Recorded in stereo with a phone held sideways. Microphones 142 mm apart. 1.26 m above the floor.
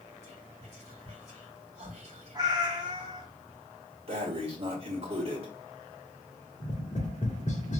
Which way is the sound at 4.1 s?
45° right (ahead or behind).